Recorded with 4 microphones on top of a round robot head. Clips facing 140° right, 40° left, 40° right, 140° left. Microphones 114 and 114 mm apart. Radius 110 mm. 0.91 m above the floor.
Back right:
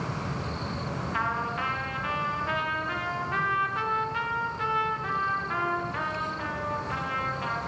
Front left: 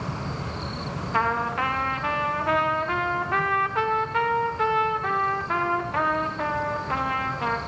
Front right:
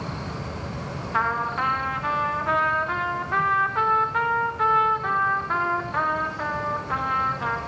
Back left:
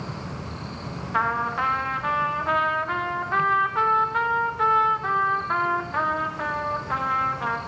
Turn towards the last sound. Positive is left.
turn(degrees=50)